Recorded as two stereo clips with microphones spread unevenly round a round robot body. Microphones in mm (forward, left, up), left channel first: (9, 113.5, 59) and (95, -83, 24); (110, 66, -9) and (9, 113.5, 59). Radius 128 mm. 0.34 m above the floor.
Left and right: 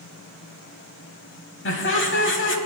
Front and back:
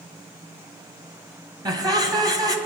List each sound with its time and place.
1.6 s laughter: 85° left, 2 m